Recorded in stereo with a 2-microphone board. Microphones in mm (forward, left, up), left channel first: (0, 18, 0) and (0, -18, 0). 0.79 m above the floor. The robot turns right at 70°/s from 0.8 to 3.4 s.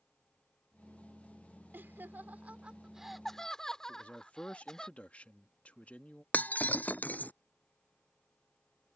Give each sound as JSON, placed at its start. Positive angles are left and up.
{"t": 1.7, "sound": "laughter", "side_deg": -70}
{"t": 3.9, "sound": "a man speaking", "side_deg": 40}
{"t": 6.3, "sound": "breaking glass", "side_deg": 50}